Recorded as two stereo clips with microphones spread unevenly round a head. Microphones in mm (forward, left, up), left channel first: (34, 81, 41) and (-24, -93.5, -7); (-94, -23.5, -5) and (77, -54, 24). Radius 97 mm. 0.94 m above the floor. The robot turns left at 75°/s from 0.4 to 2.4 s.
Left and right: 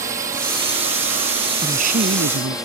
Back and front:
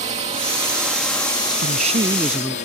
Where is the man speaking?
40° right; by 2.6 s 100° right.